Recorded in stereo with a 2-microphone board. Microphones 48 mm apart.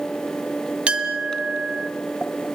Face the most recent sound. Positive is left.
turn(degrees=-25)  # may be behind; listen again after turning